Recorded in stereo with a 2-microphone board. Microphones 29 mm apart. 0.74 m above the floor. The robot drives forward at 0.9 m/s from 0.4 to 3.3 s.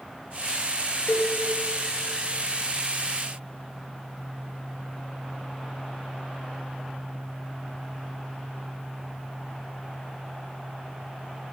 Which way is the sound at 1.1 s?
65° left (ahead or behind).